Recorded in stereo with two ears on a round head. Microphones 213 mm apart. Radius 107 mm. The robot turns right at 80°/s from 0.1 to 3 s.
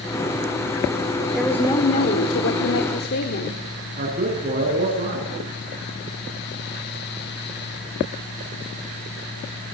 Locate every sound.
1.3 s a woman speaking: 10° right, 1.7 m; by 3.6 s 125° left, 1.7 m
4.0 s a man speaking: 40° right (ahead or behind), 6.5 m